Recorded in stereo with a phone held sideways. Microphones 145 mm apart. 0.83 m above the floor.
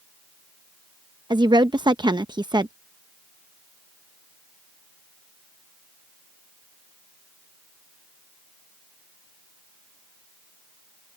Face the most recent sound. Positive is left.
turn(degrees=-30)  # may be behind; listen again after turning